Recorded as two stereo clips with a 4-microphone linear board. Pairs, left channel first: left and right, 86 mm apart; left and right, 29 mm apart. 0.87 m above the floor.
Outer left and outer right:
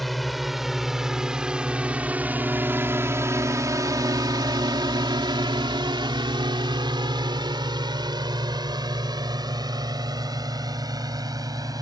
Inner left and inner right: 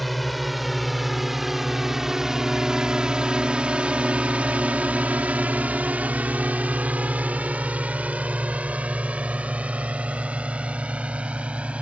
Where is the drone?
Centre (ahead or behind); by 11.8 s 50° right (ahead or behind).